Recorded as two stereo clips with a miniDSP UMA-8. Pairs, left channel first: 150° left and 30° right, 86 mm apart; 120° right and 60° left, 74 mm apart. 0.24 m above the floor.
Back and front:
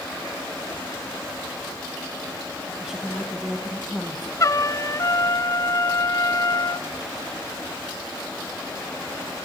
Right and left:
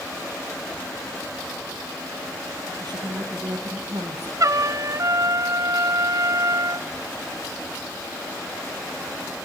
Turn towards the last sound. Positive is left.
turn(degrees=100)